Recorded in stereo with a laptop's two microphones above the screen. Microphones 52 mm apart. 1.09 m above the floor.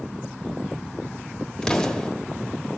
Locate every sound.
1.6 s an explosion: 15° left (ahead or behind), 1.1 m